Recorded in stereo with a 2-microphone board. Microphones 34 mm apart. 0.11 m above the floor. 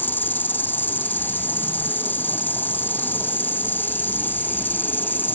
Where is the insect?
65° left (ahead or behind).